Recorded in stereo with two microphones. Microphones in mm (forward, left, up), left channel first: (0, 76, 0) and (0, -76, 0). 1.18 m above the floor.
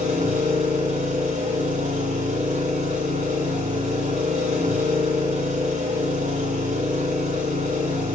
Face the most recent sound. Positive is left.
turn(degrees=-65)  # may be behind; listen again after turning